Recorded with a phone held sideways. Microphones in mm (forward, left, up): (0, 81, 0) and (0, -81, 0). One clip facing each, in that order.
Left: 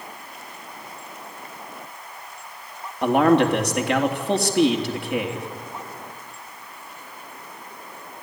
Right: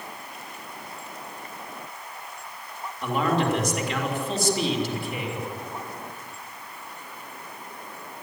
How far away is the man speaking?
About 3 m.